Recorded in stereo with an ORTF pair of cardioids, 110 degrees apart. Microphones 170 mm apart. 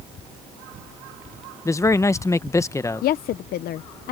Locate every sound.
1.6 s a man speaking: 15° left
3.0 s a woman speaking: 65° left